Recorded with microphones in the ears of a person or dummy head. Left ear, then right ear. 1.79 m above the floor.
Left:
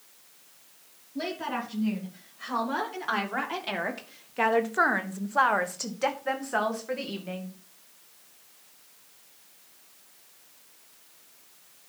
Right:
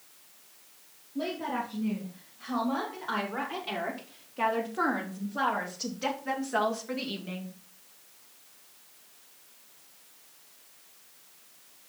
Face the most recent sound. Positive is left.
turn(degrees=20)  # may be behind; listen again after turning